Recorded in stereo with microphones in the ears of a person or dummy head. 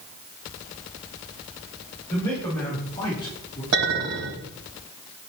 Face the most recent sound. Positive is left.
turn(degrees=-70)  # may be behind; listen again after turning